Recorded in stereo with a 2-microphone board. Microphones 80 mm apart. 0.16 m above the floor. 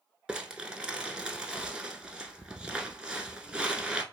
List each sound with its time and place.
0.3 s crumpling: 10° right (ahead or behind), 0.5 m